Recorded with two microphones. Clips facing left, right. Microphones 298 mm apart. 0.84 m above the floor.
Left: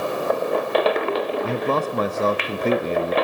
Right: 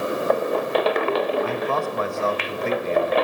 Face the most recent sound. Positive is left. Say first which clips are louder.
# left 2 dB
turn(degrees=45)  # may be behind; listen again after turning